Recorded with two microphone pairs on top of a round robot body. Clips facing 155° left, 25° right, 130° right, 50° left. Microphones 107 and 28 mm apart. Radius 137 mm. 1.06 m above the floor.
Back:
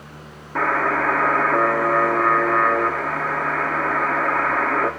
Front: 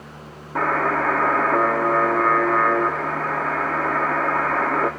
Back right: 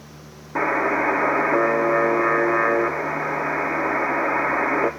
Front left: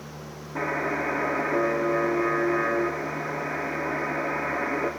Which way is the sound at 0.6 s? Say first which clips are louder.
Even, back right 7 dB; 105° right.